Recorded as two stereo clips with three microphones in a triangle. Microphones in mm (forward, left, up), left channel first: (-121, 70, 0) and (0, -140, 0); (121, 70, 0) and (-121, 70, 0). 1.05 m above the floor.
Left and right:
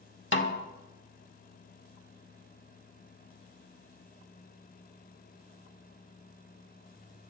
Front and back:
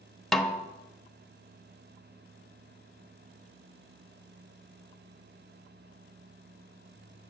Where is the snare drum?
90° left, 1.1 m.